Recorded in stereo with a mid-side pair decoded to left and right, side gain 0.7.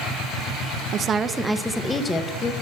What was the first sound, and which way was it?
A woman speaking, 45° right.